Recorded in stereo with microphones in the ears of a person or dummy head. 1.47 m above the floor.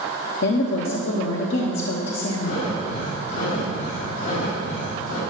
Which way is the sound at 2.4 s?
75° left (ahead or behind).